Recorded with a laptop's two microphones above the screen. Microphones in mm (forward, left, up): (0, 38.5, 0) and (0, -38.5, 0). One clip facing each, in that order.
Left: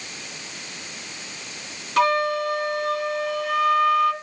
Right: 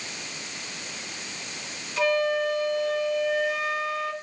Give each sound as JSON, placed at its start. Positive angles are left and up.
{"t": 2.0, "sound": "a flute", "side_deg": 65, "distance_m": 1.5}